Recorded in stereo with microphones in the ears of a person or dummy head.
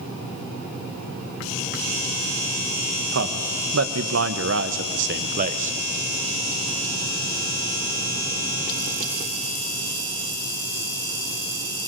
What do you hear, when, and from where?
3.1 s a man speaking: 75° right (ahead or behind), 2 m; by 5.8 s 30° right (ahead or behind), 1.0 m